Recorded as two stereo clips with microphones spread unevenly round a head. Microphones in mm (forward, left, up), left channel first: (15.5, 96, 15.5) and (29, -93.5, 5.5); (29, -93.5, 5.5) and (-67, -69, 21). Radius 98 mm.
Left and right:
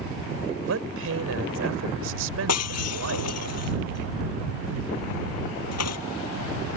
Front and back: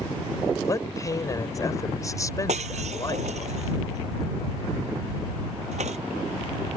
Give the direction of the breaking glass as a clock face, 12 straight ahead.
8 o'clock.